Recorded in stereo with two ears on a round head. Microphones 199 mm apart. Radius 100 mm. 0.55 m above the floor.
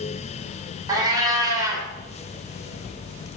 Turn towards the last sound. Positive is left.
turn(degrees=-15)  # may be behind; listen again after turning